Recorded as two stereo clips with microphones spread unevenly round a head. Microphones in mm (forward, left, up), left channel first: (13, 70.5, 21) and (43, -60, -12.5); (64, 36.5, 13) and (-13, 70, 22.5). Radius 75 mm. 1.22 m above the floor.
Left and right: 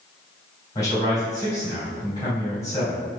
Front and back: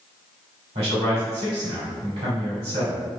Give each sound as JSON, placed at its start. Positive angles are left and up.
{"t": 0.8, "sound": "a man speaking", "azimuth_deg": 175, "distance_m": 1.8}